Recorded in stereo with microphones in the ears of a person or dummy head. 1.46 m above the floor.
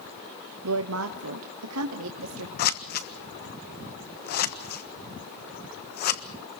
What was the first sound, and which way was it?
A woman speaking, 80° right.